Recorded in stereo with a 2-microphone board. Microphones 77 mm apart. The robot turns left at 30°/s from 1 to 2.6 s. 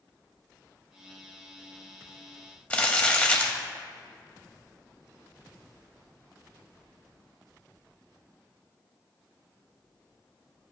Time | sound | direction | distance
2.7 | crumpling | 20° left (ahead or behind) | 1.0 m